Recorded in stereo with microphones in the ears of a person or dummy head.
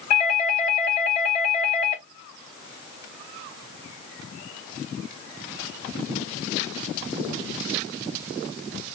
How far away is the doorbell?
About 3 m.